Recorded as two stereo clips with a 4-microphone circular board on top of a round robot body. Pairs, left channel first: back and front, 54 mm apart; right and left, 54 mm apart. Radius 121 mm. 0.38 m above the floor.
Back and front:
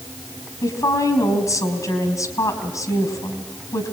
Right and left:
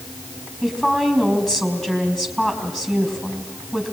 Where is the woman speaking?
175° right, 4.5 m.